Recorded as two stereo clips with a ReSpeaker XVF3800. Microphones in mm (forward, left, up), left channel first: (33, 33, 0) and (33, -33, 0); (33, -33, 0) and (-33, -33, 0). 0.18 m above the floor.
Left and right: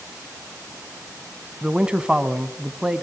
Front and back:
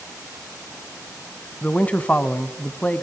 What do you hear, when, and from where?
1.6 s a man speaking: 35° right, 1.1 m